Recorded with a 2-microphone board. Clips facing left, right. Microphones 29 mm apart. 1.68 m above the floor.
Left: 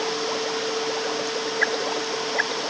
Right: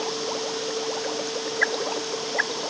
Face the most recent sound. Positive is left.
No sound to turn to.